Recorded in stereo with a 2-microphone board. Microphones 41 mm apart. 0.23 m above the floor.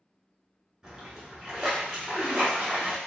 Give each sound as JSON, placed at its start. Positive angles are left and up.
{"t": 0.8, "sound": "a splash", "side_deg": -15, "distance_m": 1.7}